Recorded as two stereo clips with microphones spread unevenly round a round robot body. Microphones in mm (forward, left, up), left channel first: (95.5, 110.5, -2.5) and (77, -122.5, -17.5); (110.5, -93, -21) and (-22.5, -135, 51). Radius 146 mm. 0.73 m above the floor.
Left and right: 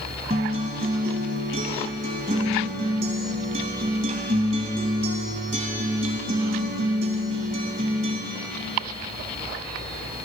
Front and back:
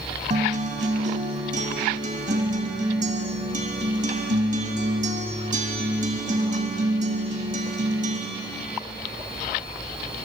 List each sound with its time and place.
0.3 s a guitar: 165° right, 1.3 m